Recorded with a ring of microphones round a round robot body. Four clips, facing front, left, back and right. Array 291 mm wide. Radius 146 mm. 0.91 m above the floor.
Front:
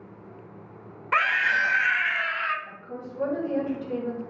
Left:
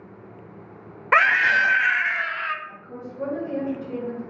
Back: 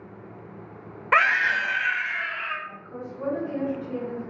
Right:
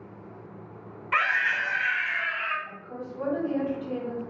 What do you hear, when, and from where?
1.1 s a scream: 115° left, 0.6 m; by 2.5 s 40° left, 0.9 m
2.6 s a woman speaking: 15° left, 4 m